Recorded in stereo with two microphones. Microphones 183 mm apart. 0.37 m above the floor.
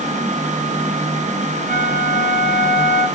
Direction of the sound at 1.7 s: 65° right (ahead or behind).